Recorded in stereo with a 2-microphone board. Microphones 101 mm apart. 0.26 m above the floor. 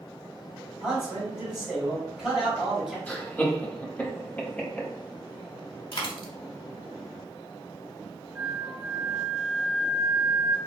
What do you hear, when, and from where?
0.8 s a man speaking: 5° right (ahead or behind), 1.3 m
3.1 s laughter: 15° left (ahead or behind), 1.1 m
5.9 s a dropped coin: 55° left (ahead or behind), 0.8 m
8.3 s a flute: 10° right (ahead or behind), 1.9 m